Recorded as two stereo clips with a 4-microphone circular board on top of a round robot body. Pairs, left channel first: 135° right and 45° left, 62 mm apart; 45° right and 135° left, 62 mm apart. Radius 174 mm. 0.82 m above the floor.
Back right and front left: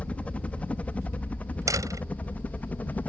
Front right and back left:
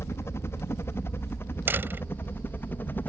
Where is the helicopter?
75° right; by 3.1 s 85° right.